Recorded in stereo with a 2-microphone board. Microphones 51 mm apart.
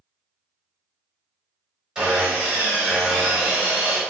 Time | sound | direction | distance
1.9 | sawing | 10° right (ahead or behind) | 1.5 m